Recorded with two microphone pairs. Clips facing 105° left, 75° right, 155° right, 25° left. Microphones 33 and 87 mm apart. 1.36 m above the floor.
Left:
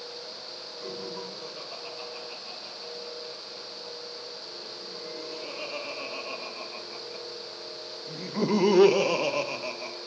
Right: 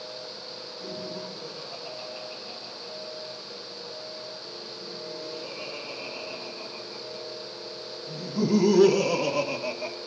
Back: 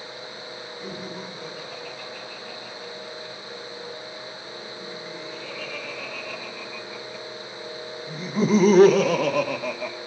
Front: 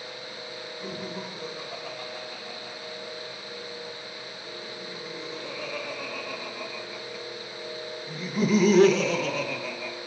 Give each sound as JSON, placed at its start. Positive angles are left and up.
{"t": 0.8, "sound": "laughter", "azimuth_deg": 85, "distance_m": 5.0}